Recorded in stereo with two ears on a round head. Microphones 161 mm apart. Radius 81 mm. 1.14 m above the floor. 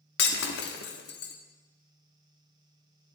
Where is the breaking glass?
70° left (ahead or behind), 1.3 m.